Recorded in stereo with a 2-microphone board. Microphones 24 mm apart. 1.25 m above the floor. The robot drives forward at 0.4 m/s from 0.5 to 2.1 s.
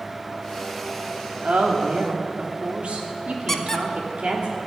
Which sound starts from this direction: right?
A woman speaking, at 1.4 s.